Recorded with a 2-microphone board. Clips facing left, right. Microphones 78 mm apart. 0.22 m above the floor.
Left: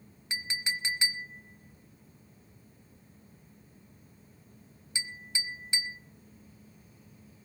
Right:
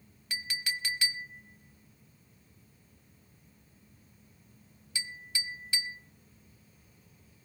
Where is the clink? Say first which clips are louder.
Left 1 dB; 25° left (ahead or behind), 0.9 m.